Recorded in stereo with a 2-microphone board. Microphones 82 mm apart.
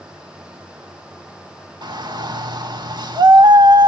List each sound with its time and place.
1.8 s a shout: 65° right (ahead or behind), 2.5 m